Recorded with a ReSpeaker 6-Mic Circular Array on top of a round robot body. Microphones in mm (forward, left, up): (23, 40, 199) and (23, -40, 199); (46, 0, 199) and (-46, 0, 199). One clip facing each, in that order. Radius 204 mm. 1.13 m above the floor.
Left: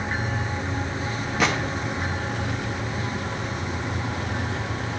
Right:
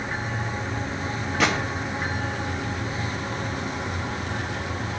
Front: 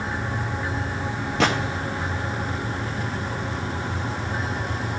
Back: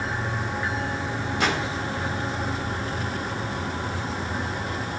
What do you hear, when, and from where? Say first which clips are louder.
1.4 s a gunshot: even, front 4 dB; 10° left, 0.6 m